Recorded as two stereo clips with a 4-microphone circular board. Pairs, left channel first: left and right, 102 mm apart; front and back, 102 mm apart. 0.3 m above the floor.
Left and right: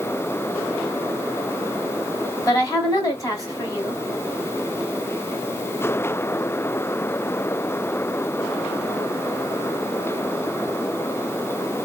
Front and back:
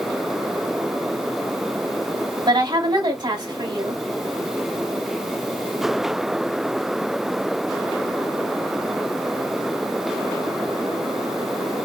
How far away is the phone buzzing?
No phone buzzing in this recording.